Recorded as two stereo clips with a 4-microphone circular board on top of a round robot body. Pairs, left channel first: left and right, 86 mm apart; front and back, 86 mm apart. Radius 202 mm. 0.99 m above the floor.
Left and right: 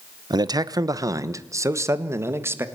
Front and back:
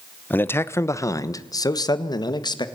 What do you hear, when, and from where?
0.3 s a man speaking: 65° right, 1.2 m; by 2.6 s 30° right, 2 m